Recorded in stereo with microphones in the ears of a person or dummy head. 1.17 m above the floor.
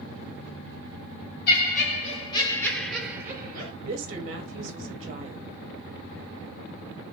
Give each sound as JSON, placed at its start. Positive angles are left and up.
{"t": 1.5, "sound": "laughter", "side_deg": 55, "distance_m": 1.4}
{"t": 3.8, "sound": "a woman speaking", "side_deg": -40, "distance_m": 0.6}